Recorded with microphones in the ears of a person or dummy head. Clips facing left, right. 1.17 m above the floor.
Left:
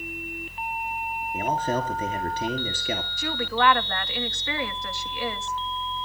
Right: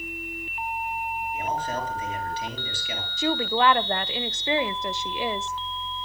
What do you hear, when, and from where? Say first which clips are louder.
1.3 s a man speaking: left 5 dB; 45° left (ahead or behind), 3.5 m
3.2 s a woman speaking: right 4 dB; 15° right (ahead or behind), 0.8 m